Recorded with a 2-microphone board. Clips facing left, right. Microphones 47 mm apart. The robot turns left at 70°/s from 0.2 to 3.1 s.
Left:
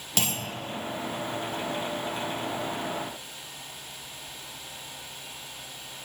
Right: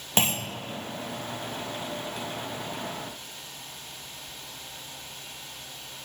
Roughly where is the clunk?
Right.